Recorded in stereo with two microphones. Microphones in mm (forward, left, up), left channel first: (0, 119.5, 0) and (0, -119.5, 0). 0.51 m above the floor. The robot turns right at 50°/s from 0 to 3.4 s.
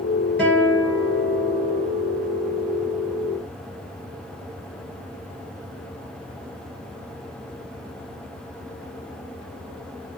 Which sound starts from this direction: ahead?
A guitar, at 0.4 s.